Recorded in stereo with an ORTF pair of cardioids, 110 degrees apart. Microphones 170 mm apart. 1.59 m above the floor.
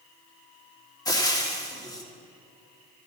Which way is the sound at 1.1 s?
20° left.